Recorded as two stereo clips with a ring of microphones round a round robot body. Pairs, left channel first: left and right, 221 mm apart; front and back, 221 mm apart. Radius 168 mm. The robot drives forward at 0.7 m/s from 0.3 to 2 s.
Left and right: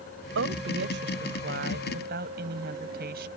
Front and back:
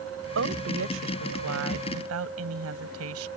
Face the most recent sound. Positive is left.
turn(degrees=-150)